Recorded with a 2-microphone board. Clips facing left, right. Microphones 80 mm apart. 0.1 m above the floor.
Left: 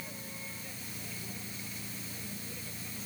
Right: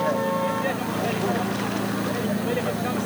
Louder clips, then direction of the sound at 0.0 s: Right 24 dB; 75° right (ahead or behind).